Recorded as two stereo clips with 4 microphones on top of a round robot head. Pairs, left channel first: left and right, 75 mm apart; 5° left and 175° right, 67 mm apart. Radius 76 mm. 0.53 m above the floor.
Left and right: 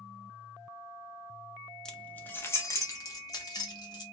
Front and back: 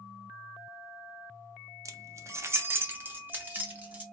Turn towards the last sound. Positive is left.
turn(degrees=120)